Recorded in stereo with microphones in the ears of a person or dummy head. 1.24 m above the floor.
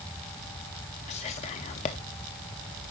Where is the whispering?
30° left (ahead or behind), 0.5 m.